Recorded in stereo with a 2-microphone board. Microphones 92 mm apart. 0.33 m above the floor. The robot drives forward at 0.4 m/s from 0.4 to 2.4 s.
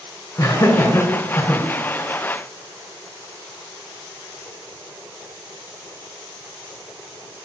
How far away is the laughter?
About 3 m.